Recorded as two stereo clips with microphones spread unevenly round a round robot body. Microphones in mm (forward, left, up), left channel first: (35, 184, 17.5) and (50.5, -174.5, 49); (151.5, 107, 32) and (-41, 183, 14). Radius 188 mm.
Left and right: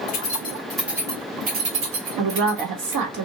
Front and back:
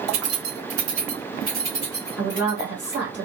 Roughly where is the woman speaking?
Behind right.